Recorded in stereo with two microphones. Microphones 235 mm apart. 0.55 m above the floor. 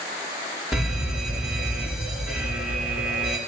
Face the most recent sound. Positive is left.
turn(degrees=0)  # may be behind; listen again after turning